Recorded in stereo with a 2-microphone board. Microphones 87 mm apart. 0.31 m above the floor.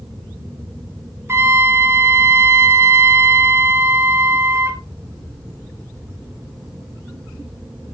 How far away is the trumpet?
About 1.8 m.